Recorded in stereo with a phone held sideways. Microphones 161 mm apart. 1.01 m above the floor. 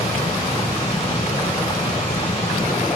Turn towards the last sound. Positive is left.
turn(degrees=40)  # may be behind; listen again after turning